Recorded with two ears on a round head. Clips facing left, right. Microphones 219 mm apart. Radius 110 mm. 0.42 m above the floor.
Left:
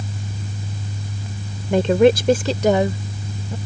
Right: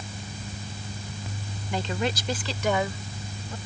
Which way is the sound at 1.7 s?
45° left (ahead or behind).